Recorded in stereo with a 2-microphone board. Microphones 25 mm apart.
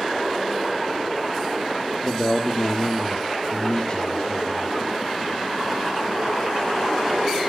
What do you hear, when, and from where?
2.0 s a man speaking: 40° left (ahead or behind), 1.8 m